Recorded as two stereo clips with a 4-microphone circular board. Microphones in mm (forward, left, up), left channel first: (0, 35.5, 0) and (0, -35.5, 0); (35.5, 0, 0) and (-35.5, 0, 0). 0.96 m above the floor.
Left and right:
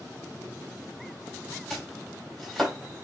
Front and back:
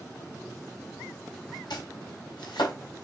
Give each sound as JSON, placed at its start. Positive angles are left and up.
{"t": 1.7, "sound": "chopping", "azimuth_deg": 5, "distance_m": 4.0}